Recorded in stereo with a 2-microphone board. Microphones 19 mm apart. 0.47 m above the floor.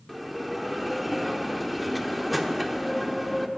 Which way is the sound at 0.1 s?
5° right (ahead or behind).